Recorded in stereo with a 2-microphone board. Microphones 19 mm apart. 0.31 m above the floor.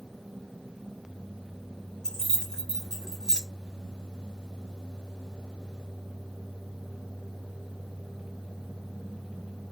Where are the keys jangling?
40° left (ahead or behind), 2.0 m.